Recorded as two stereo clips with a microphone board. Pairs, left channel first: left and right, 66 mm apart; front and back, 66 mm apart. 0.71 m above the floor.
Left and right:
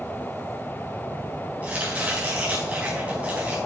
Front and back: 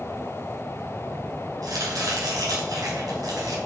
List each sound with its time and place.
1.6 s chopping: 160° right, 5 m